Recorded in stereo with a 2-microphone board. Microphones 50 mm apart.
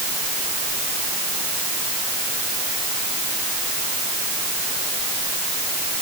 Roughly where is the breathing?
I don't hear breathing.